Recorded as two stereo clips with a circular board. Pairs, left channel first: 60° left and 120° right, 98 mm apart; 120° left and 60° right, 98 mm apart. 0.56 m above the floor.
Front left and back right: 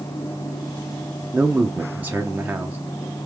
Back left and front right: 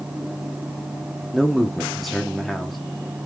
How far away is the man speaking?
About 0.6 m.